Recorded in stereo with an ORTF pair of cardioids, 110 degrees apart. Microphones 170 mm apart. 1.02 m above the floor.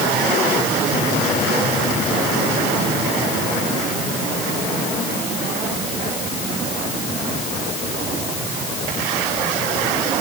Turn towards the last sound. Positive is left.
No sound to turn to.